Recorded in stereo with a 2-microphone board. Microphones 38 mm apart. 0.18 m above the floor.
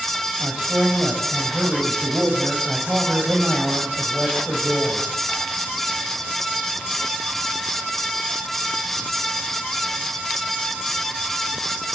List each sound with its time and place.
0.4 s a man speaking: 30° right (ahead or behind), 6.5 m